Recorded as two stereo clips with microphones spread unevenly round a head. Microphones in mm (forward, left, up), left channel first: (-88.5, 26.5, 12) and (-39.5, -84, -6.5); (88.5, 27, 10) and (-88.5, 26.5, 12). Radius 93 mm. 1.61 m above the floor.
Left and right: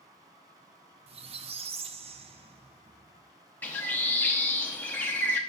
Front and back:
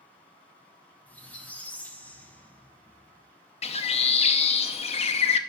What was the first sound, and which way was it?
A squeak, 80° right.